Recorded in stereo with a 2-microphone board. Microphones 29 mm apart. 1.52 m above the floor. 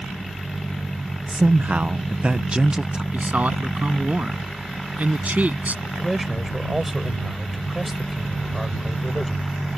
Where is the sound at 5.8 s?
10° right (ahead or behind).